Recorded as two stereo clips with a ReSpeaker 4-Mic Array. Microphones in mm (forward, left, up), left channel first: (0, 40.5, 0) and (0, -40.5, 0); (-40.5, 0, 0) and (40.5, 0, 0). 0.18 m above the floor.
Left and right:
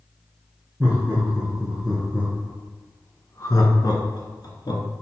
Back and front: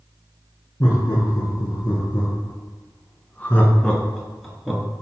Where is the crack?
I don't hear a crack.